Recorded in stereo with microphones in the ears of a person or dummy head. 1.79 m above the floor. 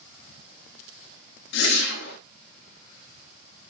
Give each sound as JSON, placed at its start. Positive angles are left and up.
{"t": 1.5, "sound": "a whoosh", "side_deg": 70, "distance_m": 1.6}